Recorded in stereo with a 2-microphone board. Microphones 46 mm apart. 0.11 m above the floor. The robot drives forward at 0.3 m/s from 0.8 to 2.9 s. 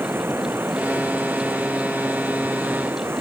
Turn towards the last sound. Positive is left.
turn(degrees=-55)  # may be behind; listen again after turning